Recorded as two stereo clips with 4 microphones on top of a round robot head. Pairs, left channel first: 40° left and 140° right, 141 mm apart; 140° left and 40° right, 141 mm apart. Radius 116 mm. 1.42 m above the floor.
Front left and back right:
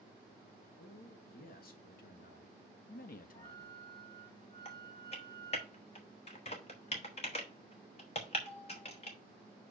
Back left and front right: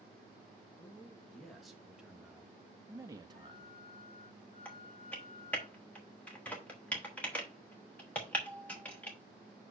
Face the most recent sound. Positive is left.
turn(degrees=60)